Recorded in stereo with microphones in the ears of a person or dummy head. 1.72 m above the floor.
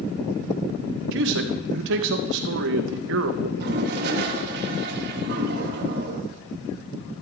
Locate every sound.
1.1 s a man speaking: 65° right (ahead or behind), 1.6 m
3.6 s a toilet flushing: 55° right (ahead or behind), 2.5 m